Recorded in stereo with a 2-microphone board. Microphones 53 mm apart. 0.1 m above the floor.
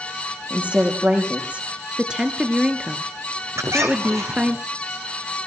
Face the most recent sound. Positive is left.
turn(degrees=-65)  # may be behind; listen again after turning